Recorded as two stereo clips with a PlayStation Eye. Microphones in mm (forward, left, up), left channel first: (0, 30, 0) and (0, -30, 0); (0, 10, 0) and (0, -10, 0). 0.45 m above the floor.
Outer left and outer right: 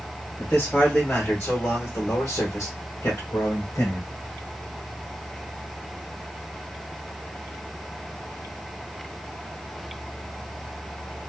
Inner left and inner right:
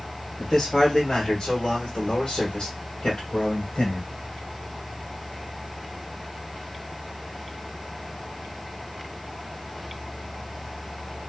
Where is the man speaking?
25° left (ahead or behind), 1.7 m; by 4.1 s 50° left (ahead or behind), 1.6 m.